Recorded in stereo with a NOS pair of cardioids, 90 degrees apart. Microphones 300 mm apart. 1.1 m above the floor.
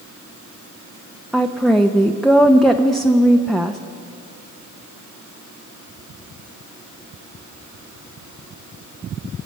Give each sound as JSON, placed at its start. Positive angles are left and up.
{"t": 1.3, "sound": "a woman speaking", "azimuth_deg": 0, "distance_m": 0.6}